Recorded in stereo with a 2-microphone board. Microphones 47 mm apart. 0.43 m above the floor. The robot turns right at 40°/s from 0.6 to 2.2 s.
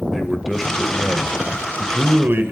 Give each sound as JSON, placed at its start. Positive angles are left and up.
{"t": 0.1, "sound": "a man speaking", "azimuth_deg": -175, "distance_m": 1.8}